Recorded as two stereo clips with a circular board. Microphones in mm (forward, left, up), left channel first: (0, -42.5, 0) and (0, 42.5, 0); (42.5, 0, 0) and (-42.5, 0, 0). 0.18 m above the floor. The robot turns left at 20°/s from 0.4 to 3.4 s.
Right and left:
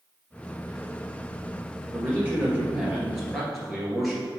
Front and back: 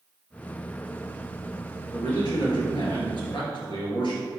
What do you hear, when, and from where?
1.9 s a man speaking: 30° left, 2.5 m; by 4.2 s straight ahead, 2.5 m